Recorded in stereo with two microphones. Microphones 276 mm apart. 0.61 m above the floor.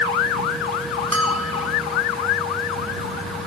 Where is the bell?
65° right (ahead or behind).